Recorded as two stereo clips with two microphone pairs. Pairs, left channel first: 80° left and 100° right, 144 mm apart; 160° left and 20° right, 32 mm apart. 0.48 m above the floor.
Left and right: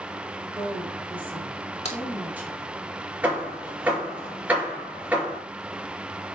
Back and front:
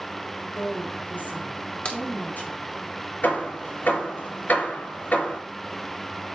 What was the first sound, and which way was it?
A woman speaking, straight behind.